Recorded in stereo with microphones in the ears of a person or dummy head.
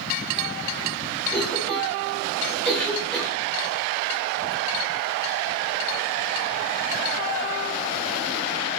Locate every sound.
1.3 s a cough: 5° left (ahead or behind), 1.7 m